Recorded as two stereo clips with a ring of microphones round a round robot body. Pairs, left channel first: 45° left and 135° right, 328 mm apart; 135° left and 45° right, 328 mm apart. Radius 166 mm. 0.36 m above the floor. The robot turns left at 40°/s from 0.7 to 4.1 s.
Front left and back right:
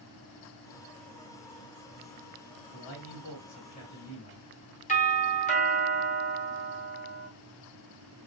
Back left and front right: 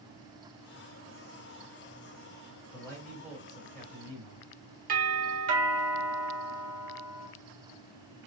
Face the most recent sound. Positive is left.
turn(degrees=-5)